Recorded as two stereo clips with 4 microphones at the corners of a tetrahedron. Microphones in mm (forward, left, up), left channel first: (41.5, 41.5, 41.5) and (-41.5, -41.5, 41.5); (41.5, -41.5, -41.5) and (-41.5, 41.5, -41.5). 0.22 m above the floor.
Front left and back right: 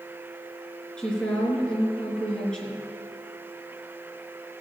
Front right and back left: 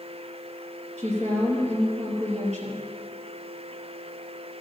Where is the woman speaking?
125° left, 3 m.